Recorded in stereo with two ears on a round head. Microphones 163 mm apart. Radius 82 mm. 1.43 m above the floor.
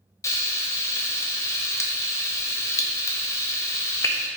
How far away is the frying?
About 0.6 m.